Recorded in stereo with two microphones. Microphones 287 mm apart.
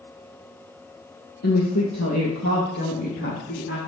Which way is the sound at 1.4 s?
65° left (ahead or behind).